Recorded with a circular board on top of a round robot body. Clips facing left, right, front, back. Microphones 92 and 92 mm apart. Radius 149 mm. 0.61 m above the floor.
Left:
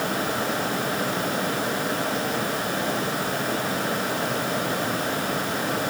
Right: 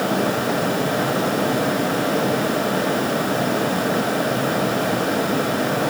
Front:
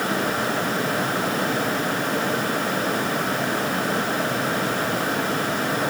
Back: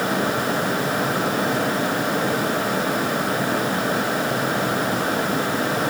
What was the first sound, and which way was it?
Only background noise.